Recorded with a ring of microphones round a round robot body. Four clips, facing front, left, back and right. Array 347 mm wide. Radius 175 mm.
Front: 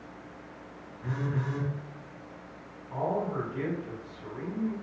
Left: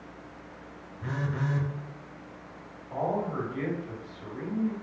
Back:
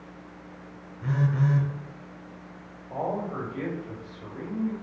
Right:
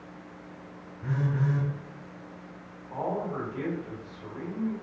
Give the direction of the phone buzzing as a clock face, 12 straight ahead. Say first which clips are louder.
Right 3 dB, back 7 dB; 8 o'clock.